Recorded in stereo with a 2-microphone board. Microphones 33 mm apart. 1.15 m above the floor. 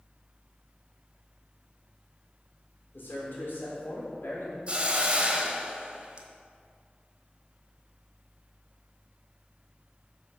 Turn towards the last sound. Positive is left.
turn(degrees=-35)  # may be behind; listen again after turning